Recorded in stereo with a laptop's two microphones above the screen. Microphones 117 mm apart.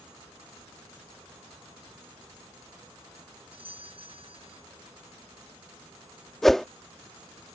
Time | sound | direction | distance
3.5 | a doorbell | 50° right (ahead or behind) | ?
6.4 | a whoosh | centre (ahead or behind) | ?